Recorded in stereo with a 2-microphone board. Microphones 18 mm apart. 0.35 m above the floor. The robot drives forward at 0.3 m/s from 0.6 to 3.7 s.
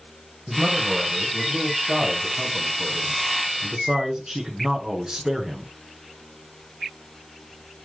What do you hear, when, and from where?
0.5 s a man speaking: 50° right (ahead or behind), 2.5 m; by 5.7 s 40° right (ahead or behind), 3 m